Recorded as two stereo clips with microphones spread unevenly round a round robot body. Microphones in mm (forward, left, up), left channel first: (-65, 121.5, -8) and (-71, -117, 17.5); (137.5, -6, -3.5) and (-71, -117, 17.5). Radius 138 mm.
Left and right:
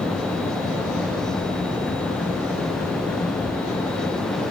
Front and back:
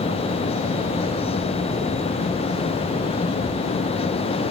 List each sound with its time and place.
Only background noise.